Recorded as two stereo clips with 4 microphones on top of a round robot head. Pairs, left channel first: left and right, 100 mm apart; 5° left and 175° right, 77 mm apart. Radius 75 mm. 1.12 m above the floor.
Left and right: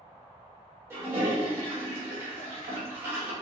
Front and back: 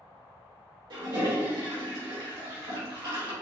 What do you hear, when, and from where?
0.9 s a toilet flushing: 155° right, 1.9 m